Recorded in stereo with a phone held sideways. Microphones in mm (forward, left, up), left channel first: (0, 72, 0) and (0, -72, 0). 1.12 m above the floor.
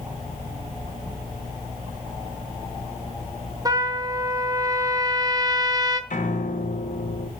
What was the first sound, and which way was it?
A trumpet, 25° right (ahead or behind).